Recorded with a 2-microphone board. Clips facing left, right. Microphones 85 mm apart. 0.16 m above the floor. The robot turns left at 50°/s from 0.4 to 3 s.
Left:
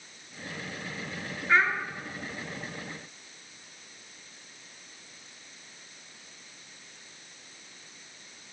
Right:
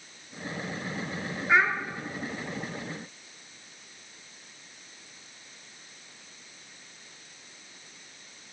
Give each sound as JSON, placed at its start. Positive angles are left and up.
{"t": 1.5, "sound": "a child speaking", "side_deg": -15, "distance_m": 1.5}